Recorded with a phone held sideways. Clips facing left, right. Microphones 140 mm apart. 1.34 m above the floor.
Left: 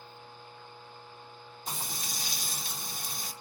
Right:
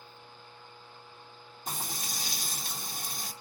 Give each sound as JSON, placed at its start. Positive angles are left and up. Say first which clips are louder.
{"t": 1.7, "sound": "frying", "louder": "right 1 dB", "side_deg": -45, "distance_m": 0.8}